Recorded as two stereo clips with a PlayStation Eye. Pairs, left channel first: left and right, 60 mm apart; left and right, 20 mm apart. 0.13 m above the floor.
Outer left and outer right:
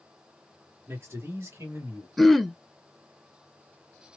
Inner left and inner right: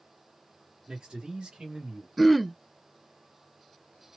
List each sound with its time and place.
0.9 s a man speaking: 40° right (ahead or behind), 1.8 m; by 2.1 s 50° right (ahead or behind), 2 m
2.2 s throat clearing: centre (ahead or behind), 0.5 m